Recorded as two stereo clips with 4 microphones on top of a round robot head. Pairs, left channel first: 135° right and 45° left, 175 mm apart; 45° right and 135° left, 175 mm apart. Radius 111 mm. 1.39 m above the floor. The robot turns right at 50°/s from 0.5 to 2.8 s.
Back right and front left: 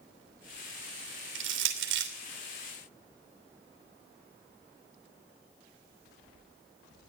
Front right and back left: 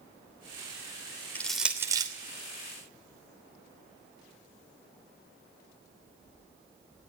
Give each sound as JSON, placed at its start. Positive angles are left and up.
{"t": 1.4, "sound": "crushing", "azimuth_deg": 35, "distance_m": 3.0}